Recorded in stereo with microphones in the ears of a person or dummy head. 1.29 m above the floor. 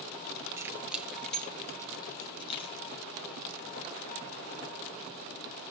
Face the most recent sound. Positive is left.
turn(degrees=35)  # may be behind; listen again after turning